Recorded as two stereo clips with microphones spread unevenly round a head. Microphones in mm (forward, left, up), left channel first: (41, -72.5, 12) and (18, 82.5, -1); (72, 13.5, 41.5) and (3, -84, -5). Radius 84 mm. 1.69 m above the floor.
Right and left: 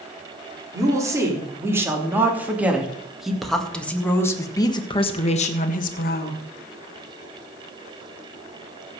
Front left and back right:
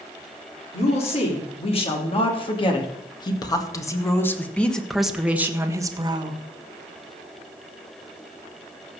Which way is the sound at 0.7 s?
30° left.